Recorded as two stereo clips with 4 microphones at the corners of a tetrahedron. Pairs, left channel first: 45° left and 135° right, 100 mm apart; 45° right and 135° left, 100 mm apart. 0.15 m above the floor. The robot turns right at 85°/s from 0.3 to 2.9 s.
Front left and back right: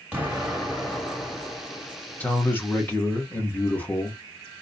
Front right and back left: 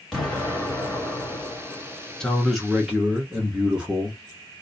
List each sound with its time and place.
0.1 s an explosion: 125° right, 1.7 m; by 2.3 s 45° left, 1.7 m
2.2 s a man speaking: 15° left, 1.0 m; by 4.2 s 75° left, 1.0 m